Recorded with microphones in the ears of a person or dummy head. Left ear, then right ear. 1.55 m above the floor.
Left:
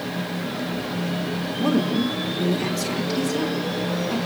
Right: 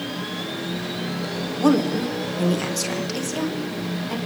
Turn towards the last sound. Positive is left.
turn(degrees=-85)